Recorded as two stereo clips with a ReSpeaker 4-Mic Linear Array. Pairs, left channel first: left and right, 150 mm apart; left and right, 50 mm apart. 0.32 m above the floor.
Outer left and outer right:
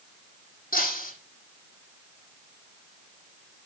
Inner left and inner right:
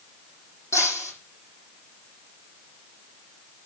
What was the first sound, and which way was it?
Breaking glass, 70° left (ahead or behind).